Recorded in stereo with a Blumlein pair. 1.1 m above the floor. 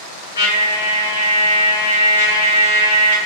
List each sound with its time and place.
0.3 s a trumpet: 70° left, 0.9 m